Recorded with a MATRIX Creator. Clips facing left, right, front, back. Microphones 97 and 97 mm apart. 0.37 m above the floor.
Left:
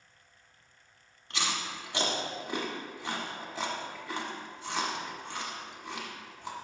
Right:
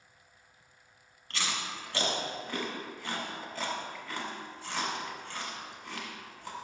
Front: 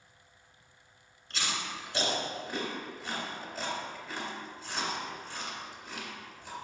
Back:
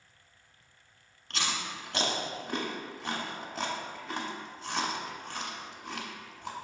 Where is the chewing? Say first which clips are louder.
Left 2 dB, back 1 dB; 160° left, 1.1 m.